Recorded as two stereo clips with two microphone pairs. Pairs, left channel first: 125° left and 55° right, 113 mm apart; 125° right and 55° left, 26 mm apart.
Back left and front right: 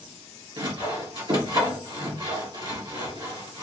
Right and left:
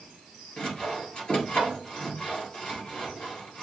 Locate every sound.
0.6 s sawing: 80° right, 2.5 m